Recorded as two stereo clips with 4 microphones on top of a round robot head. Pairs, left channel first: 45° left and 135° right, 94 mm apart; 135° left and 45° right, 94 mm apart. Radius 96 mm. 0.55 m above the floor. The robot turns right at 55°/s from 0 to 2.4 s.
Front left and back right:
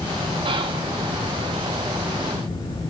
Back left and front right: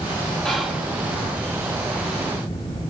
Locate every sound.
0.5 s whispering: 140° right, 1.8 m; by 0.9 s 115° right, 1.8 m